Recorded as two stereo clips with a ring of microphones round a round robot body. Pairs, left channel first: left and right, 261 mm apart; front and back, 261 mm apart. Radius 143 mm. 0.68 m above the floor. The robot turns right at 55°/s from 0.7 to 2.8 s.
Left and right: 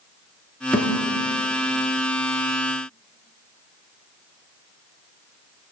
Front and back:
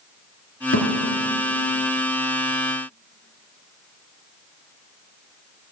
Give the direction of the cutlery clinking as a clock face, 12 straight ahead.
I don't hear cutlery clinking.